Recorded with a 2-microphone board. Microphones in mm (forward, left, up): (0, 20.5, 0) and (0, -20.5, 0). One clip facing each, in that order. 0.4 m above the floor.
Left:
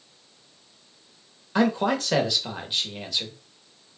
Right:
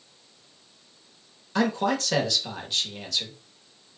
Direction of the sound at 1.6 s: 15° left (ahead or behind).